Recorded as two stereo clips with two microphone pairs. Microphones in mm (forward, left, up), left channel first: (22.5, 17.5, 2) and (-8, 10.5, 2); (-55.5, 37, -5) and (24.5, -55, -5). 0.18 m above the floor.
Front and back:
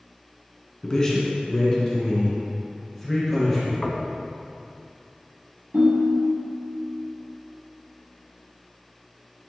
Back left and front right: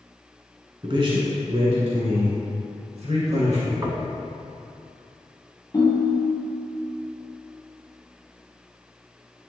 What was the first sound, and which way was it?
A man speaking, 40° right.